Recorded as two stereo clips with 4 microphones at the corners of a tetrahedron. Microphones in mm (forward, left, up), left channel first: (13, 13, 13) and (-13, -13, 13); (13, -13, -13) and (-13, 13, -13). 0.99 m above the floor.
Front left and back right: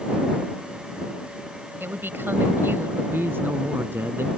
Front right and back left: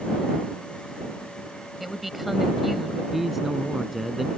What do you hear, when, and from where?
1.8 s a woman speaking: 140° right
3.1 s a man speaking: 140° right